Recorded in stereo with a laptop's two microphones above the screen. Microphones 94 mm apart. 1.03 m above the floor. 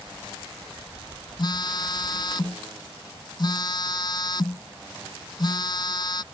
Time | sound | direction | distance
1.4 | a phone buzzing | 45° left (ahead or behind) | ?